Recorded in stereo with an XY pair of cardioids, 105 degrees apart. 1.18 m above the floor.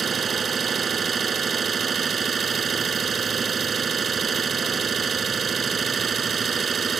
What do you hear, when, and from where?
0.0 s an engine running: 40° right